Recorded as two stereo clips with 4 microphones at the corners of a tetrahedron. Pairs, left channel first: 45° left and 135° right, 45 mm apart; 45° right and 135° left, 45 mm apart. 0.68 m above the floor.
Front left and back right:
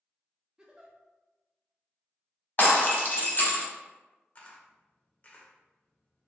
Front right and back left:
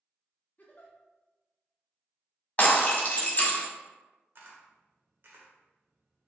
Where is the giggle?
70° right, 0.7 m.